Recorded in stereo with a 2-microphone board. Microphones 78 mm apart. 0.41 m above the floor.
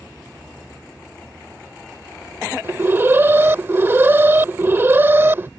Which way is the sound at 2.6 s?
30° right (ahead or behind).